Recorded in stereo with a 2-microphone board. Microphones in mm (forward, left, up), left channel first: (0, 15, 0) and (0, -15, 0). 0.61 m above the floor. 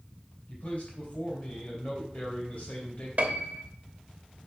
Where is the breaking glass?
I don't hear breaking glass.